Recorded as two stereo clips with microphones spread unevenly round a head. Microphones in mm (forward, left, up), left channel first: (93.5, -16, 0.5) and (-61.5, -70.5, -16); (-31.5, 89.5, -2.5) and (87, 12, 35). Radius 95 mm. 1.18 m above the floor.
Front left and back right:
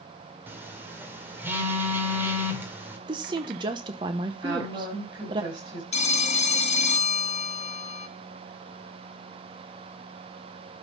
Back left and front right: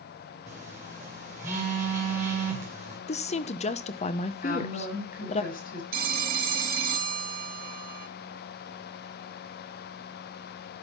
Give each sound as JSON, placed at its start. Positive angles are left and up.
{"t": 0.5, "sound": "a phone buzzing", "azimuth_deg": -80, "distance_m": 1.9}
{"t": 3.1, "sound": "a woman speaking", "azimuth_deg": 140, "distance_m": 0.7}
{"t": 4.4, "sound": "a woman speaking", "azimuth_deg": 130, "distance_m": 5.0}
{"t": 5.9, "sound": "a phone ringing", "azimuth_deg": -30, "distance_m": 0.9}